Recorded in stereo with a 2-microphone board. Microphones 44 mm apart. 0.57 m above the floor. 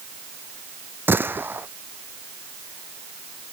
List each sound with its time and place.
1.1 s a gunshot: 60° right (ahead or behind)